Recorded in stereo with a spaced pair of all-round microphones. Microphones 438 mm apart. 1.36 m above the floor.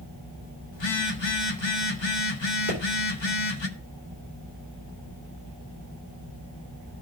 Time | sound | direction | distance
0.7 | a phone buzzing | 80° left | 1.2 m
2.7 | a pop | 45° right (ahead or behind) | 4.5 m